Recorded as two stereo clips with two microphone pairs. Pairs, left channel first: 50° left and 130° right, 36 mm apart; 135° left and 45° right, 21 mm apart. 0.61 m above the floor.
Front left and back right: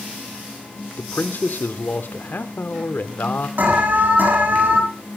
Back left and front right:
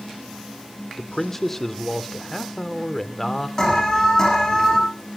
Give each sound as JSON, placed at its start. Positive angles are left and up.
{"t": 1.0, "sound": "a man speaking", "azimuth_deg": 65, "distance_m": 1.5}
{"t": 3.6, "sound": "an alarm", "azimuth_deg": -165, "distance_m": 7.0}